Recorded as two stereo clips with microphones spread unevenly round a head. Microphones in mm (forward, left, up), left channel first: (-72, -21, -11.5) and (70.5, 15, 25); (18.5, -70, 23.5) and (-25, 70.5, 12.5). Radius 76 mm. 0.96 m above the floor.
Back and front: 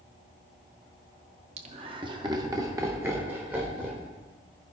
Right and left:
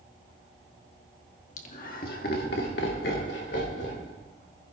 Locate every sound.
1.6 s laughter: 35° right, 1.9 m; by 4.1 s 70° right, 4 m